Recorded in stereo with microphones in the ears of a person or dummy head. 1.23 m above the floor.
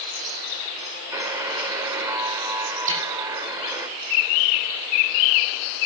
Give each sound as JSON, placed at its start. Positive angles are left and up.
{"t": 1.1, "sound": "a buzzer", "side_deg": -15, "distance_m": 2.5}
{"t": 2.9, "sound": "a snare drum", "side_deg": -40, "distance_m": 7.5}